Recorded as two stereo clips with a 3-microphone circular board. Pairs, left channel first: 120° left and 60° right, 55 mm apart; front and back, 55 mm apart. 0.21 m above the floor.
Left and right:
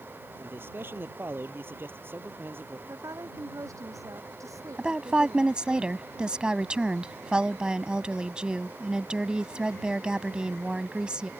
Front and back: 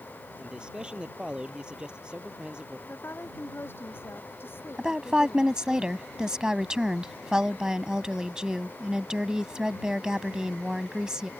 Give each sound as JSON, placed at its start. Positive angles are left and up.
{"t": 0.4, "sound": "a man speaking", "azimuth_deg": -110}
{"t": 2.9, "sound": "a woman speaking", "azimuth_deg": -45}
{"t": 4.8, "sound": "a woman speaking", "azimuth_deg": -115}